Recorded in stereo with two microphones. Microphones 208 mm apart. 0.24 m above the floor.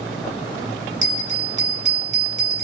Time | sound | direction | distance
1.0 | a bell | 35° right (ahead or behind) | 1.4 m